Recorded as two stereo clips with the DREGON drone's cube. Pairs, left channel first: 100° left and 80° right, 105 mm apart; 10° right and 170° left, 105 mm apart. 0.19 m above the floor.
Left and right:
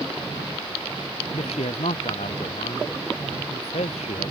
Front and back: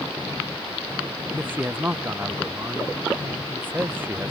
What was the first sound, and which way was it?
A man speaking, 95° left.